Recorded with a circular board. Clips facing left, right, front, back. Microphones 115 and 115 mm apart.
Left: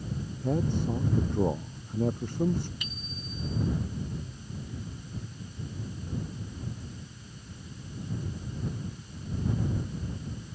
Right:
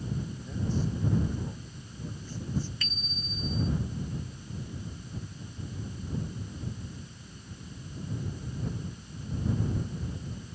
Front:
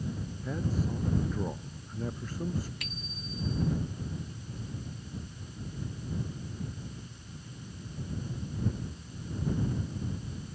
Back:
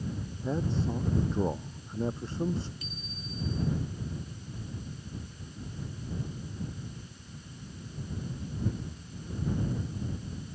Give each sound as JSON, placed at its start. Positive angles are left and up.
{"t": 0.4, "sound": "a man speaking", "azimuth_deg": 115}
{"t": 2.8, "sound": "a bicycle bell", "azimuth_deg": 15}